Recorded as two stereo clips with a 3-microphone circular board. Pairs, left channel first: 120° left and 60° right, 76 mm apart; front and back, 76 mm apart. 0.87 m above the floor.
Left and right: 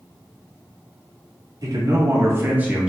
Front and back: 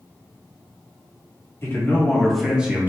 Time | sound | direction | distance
1.6 | a man speaking | 50° right | 1.4 m